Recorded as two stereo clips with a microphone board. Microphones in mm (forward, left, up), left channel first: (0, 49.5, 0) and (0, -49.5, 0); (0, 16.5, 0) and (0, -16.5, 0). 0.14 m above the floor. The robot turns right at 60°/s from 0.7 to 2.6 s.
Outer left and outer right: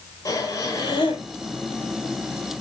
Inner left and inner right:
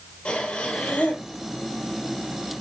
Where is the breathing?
35° left, 3 m; by 1.2 s 70° left, 3 m.